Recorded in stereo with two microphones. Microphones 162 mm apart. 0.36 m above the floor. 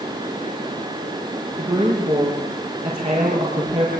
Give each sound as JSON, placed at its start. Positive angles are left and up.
{"t": 1.6, "sound": "a woman speaking", "side_deg": -35, "distance_m": 7.0}